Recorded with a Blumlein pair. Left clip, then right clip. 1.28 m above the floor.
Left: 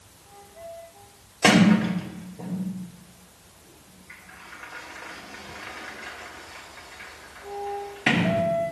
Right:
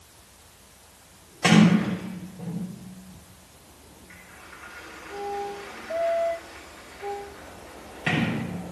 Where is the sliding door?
20° left, 2.5 m.